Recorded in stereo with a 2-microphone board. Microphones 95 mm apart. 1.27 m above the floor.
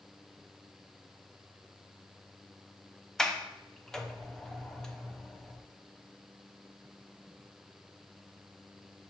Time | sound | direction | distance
3.2 | a sliding door | 5° left (ahead or behind) | 0.5 m